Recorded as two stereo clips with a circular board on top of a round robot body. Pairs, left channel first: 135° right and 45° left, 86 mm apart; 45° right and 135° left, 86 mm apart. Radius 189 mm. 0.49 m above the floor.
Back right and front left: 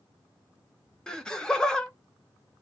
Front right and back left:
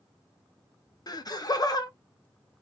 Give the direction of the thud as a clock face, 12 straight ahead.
No thud in this recording.